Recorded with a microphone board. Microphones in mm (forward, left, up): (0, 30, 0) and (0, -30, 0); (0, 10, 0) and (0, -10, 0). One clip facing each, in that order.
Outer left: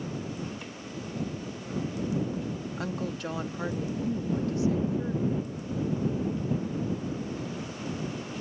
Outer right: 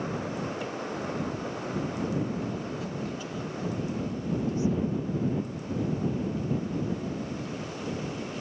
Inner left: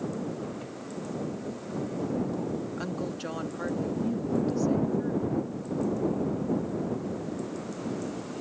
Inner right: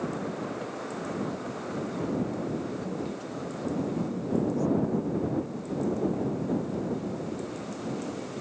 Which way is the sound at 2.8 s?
75° left (ahead or behind).